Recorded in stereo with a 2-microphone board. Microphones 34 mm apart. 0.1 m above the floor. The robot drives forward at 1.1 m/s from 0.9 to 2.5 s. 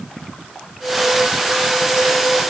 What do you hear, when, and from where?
Only background noise.